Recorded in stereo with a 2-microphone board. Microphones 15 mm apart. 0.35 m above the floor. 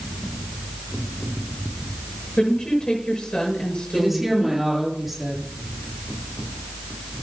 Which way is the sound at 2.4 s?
75° left (ahead or behind).